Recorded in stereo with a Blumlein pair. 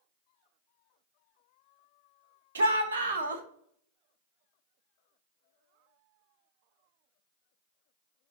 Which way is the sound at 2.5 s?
65° right.